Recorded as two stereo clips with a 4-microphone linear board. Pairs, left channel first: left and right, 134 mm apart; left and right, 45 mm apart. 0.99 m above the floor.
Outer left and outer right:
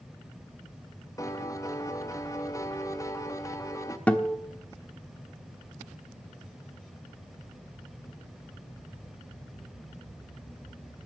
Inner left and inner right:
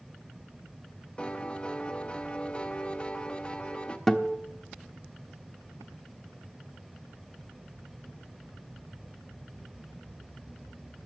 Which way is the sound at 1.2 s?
25° left (ahead or behind).